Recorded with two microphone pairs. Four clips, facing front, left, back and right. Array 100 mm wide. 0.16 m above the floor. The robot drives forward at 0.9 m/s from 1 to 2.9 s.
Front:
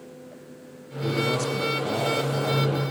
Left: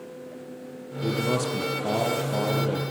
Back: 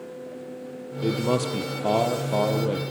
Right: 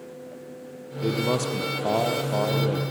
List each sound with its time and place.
1.0 s a man speaking: 135° right, 4 m; by 2.8 s 150° right, 5 m